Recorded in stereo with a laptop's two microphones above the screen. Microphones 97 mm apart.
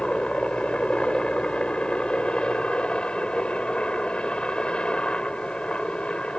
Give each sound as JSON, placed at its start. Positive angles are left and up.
{"t": 0.0, "sound": "a helicopter", "side_deg": 10}